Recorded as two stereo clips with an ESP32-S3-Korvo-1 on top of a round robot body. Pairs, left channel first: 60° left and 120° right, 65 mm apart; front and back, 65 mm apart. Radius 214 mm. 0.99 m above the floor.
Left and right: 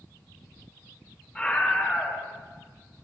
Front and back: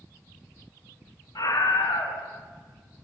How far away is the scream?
About 8.5 m.